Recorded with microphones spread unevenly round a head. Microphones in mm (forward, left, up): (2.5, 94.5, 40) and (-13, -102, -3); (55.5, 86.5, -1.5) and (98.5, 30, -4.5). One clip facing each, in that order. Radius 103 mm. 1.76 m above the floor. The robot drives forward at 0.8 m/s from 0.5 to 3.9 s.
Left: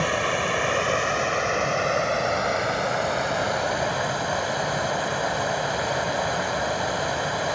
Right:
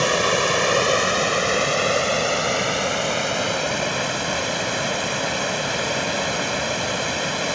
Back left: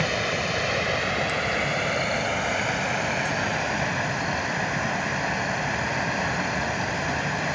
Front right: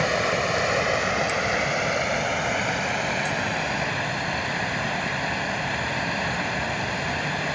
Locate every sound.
0.0 s running water: 130° right; by 7.5 s 150° right